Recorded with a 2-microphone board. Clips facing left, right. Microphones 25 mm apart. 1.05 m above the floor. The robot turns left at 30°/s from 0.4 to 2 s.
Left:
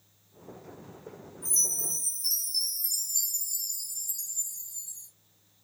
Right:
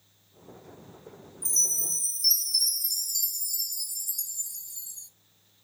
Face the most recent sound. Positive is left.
turn(degrees=-75)  # may be behind; listen again after turning